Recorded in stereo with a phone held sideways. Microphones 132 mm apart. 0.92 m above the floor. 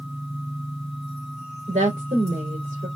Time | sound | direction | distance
1.7 | a woman speaking | 75° right (ahead or behind) | 3.5 m